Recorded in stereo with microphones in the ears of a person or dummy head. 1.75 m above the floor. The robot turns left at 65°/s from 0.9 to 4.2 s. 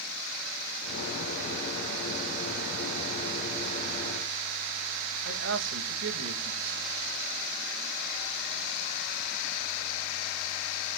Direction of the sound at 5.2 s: 65° right (ahead or behind).